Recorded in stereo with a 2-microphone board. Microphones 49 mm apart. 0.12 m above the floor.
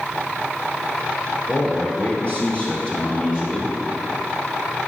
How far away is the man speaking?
About 2.5 m.